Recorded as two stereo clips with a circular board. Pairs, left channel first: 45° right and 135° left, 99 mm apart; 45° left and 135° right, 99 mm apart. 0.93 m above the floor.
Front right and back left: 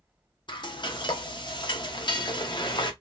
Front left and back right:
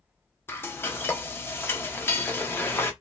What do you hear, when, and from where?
0.5 s frying: 20° right, 0.6 m